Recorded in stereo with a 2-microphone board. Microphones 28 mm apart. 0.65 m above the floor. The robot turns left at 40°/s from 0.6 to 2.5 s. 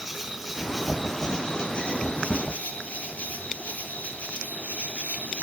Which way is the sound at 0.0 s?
170° right.